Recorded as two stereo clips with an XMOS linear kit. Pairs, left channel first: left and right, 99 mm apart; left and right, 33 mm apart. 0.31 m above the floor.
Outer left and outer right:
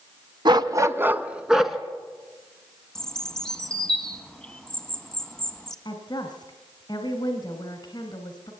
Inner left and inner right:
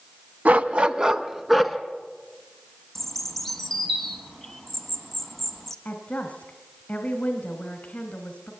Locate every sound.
0.5 s a dog barking: 50° right (ahead or behind), 0.9 m; by 1.8 s centre (ahead or behind), 1.6 m
3.0 s a bird: 5° left (ahead or behind), 1.5 m
5.8 s a woman speaking: 50° left (ahead or behind), 1.9 m